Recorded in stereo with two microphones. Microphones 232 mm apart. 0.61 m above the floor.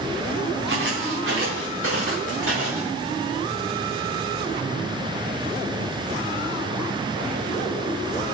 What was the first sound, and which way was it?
Footsteps, 55° right (ahead or behind).